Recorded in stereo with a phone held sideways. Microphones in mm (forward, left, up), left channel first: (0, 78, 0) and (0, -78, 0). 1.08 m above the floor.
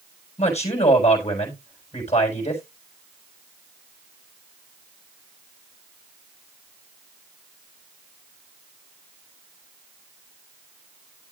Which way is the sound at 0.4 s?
40° left (ahead or behind).